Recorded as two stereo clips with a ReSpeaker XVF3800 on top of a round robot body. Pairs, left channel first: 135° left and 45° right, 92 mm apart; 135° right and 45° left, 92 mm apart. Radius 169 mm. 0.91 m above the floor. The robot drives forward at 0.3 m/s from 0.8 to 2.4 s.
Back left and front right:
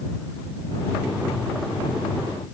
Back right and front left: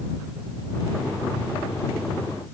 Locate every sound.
Only background noise.